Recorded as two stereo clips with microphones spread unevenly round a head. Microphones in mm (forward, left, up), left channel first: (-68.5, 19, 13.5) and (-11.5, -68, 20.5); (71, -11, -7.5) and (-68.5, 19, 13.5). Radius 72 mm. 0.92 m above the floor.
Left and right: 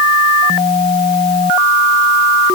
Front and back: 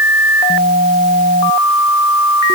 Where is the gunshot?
I don't hear a gunshot.